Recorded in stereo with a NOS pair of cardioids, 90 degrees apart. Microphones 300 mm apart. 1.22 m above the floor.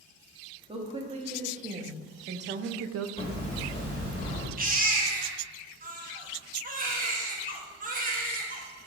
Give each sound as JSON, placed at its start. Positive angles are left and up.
{"t": 0.7, "sound": "a woman speaking", "azimuth_deg": -15, "distance_m": 1.8}
{"t": 3.2, "sound": "hammering", "azimuth_deg": 20, "distance_m": 2.0}
{"t": 4.6, "sound": "a baby crying", "azimuth_deg": -25, "distance_m": 1.3}